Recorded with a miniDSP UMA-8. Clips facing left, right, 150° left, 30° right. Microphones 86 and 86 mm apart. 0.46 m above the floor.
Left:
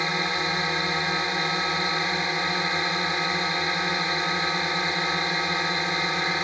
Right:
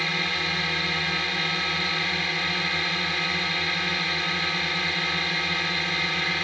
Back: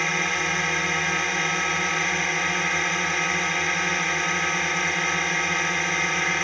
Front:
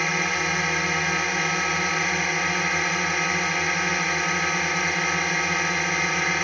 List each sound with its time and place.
0.0 s a drone: 55° left